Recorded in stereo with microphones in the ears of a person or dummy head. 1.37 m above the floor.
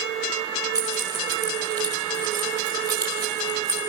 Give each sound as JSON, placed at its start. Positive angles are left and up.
{"t": 0.8, "sound": "keys jangling", "side_deg": -20, "distance_m": 3.5}